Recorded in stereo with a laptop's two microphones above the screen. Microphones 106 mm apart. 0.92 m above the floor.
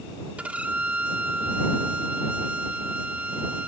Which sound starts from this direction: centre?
A violin, at 0.4 s.